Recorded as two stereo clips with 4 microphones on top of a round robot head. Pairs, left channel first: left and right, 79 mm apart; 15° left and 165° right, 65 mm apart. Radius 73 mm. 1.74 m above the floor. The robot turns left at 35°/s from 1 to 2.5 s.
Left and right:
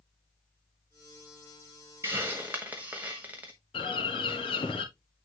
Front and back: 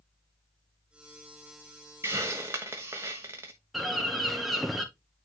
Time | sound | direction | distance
2.0 | a hiss | 135° right | 1.0 m
3.7 | a bird | 105° left | 1.9 m